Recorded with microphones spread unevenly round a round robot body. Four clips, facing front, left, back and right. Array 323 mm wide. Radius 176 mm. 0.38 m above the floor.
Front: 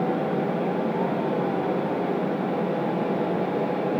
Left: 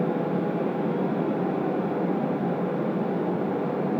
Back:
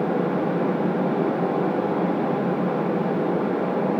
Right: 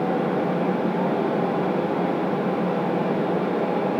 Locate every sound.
Only background noise.